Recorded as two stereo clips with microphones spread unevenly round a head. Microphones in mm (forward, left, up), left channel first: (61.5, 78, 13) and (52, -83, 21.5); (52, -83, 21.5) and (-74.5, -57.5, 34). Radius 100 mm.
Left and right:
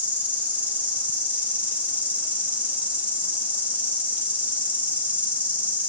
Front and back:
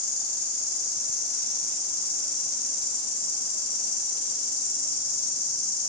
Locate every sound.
0.0 s an insect: 15° right, 1.0 m